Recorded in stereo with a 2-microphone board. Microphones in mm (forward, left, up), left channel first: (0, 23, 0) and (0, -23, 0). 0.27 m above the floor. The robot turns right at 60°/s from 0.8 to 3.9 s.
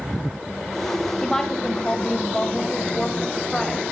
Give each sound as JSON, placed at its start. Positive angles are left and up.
{"t": 1.2, "sound": "a woman speaking", "side_deg": 10, "distance_m": 1.0}